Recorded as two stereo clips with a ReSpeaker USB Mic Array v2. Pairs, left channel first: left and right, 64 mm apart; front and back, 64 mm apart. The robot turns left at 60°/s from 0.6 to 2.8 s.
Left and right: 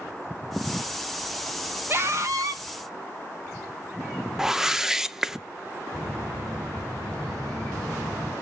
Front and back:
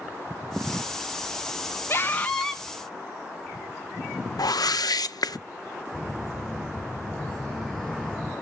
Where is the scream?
45° right, 1.6 m; by 2.6 s 90° right, 1.6 m.